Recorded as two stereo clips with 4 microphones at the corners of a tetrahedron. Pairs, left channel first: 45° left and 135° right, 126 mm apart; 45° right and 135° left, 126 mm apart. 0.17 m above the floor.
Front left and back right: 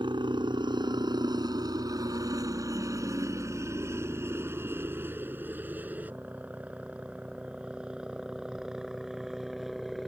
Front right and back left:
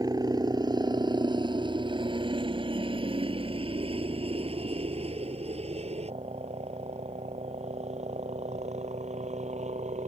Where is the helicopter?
175° right; by 10.1 s 135° left.